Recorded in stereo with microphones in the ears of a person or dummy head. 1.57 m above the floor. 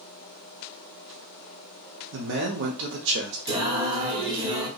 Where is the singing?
25° right (ahead or behind), 0.6 m.